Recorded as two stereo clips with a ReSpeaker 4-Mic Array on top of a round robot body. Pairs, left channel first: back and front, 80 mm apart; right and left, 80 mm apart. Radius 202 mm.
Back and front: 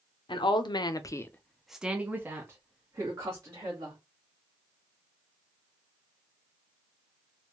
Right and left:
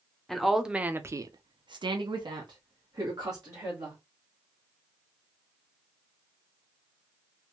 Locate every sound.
0.3 s a woman speaking: 175° right, 0.7 m; by 4.0 s 45° left, 1.5 m